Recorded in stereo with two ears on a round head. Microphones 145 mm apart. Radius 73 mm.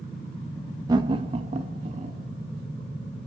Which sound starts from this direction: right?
Laughter, at 0.9 s.